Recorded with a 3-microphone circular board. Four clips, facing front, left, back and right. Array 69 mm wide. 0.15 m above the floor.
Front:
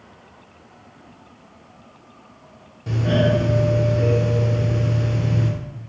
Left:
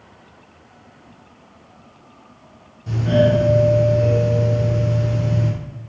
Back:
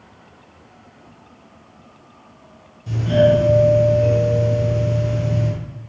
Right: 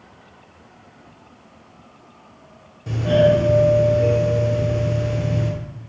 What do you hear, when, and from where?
2.9 s a doorbell: 35° right, 3.5 m